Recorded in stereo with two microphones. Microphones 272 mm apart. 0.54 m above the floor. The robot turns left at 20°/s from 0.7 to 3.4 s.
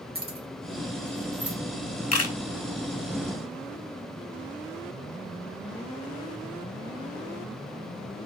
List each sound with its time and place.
0.1 s keys jangling: 35° right (ahead or behind), 0.8 m; by 1.6 s 40° right (ahead or behind), 0.8 m
2.1 s a camera shutter: 60° left (ahead or behind), 0.6 m